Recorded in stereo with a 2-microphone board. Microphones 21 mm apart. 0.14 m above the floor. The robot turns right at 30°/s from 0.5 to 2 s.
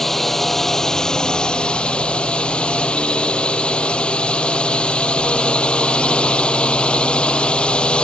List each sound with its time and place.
0.0 s a drone: 15° left; by 8.0 s 60° left